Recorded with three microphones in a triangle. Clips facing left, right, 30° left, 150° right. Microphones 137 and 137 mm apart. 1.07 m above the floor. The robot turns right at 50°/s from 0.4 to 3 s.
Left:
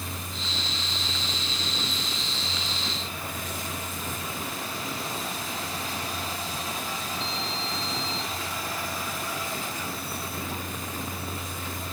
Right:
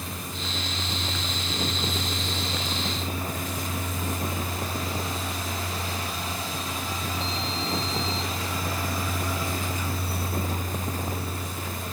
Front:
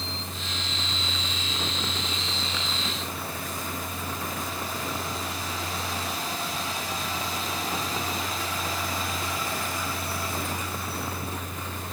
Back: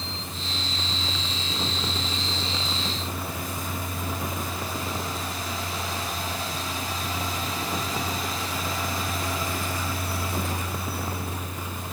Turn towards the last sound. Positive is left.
No sound to turn to.